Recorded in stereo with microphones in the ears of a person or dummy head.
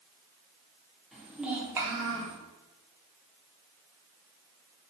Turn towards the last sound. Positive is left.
turn(degrees=-35)  # may be behind; listen again after turning